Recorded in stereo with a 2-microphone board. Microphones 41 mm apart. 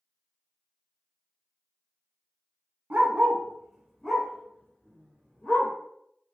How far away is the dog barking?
About 0.7 m.